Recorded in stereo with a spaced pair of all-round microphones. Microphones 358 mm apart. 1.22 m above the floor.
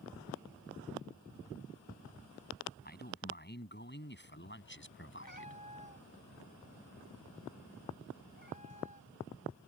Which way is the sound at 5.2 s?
55° left (ahead or behind).